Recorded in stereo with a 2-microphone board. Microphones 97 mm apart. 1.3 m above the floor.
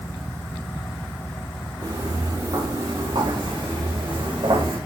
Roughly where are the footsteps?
Right.